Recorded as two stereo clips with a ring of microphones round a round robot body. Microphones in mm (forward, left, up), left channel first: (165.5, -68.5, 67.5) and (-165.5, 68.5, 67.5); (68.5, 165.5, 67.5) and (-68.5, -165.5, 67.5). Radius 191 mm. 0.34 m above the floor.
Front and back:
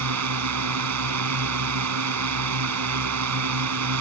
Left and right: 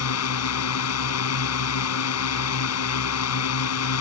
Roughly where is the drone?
Behind left.